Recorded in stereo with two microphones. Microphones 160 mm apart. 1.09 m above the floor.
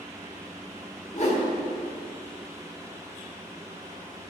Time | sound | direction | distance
1.1 | a whoosh | 45° left (ahead or behind) | 1.0 m